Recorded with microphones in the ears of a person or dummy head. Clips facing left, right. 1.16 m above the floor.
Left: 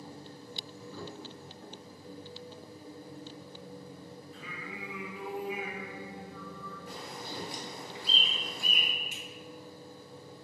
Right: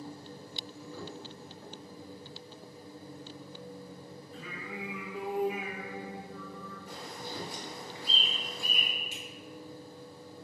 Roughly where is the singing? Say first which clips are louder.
Right 4 dB; right.